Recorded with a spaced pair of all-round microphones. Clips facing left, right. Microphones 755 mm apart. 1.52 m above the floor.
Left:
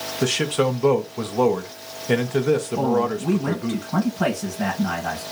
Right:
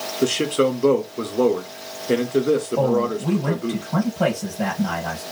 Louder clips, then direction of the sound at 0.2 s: Right 2 dB; 30° left (ahead or behind).